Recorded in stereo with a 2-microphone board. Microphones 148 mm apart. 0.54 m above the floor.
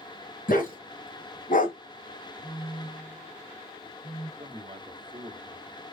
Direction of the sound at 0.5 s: 75° left (ahead or behind).